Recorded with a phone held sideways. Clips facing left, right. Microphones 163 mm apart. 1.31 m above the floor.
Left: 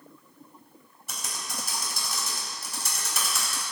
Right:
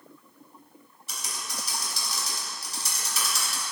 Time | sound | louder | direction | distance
1.1 | typing on a keyboard | left 1 dB | 55° left (ahead or behind) | 4 m